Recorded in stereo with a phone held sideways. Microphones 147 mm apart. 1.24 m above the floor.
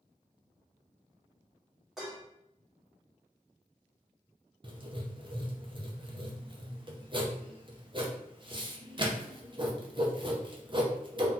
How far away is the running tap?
I don't hear a running tap.